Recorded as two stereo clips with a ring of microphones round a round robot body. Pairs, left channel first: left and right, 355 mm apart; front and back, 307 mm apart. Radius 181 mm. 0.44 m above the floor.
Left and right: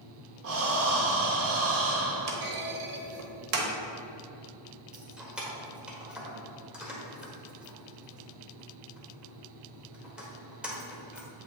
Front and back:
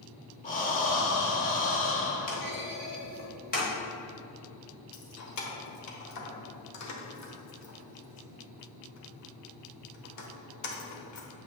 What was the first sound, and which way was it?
Breathing, 55° right.